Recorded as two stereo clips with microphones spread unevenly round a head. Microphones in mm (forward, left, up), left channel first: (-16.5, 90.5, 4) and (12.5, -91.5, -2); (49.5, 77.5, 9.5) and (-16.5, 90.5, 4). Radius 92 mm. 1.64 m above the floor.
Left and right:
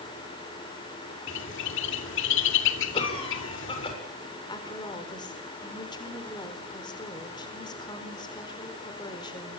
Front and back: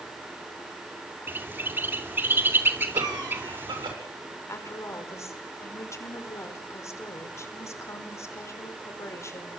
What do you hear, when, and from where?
1.3 s a bird: 110° left, 2.5 m
2.9 s a cough: 160° left, 7.5 m
4.5 s a woman speaking: 30° left, 4.5 m